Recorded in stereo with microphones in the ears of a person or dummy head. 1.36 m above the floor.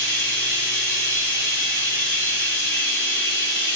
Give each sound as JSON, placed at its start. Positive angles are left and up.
{"t": 0.0, "sound": "running water", "side_deg": 70, "distance_m": 6.5}